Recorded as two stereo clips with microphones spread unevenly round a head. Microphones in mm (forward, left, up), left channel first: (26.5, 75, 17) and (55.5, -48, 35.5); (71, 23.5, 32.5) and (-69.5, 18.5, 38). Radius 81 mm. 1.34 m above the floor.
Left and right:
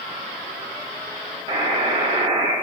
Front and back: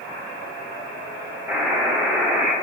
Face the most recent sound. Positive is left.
turn(degrees=-105)